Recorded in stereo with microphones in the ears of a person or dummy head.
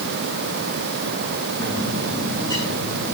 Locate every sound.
1.6 s a bird: 20° left (ahead or behind), 8 m